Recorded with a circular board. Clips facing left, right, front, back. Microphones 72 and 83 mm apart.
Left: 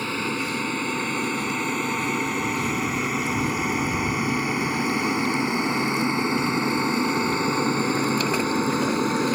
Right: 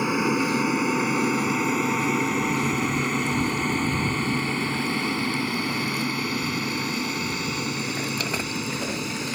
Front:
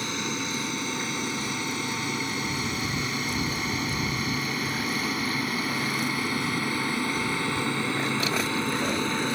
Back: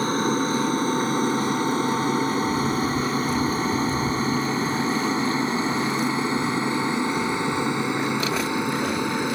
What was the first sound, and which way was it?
An aircraft, 160° right.